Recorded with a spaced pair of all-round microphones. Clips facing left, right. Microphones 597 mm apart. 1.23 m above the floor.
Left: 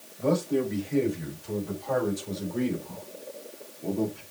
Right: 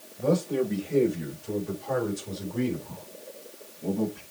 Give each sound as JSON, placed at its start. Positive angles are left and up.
{"t": 0.2, "sound": "a man speaking", "side_deg": -55, "distance_m": 4.5}